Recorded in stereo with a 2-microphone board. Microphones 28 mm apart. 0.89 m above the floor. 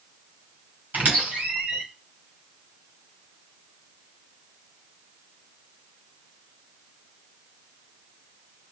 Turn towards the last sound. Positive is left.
turn(degrees=-70)  # may be behind; listen again after turning